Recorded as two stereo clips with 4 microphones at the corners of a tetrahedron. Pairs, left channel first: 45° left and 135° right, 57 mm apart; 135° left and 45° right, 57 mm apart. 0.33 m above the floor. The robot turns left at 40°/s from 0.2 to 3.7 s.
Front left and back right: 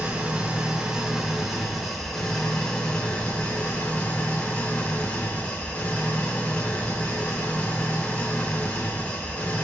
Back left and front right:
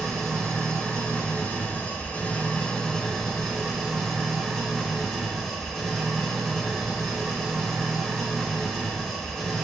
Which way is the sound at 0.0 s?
165° right.